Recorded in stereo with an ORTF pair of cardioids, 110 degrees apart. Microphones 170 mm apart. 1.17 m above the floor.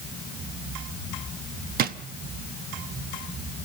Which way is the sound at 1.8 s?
65° right.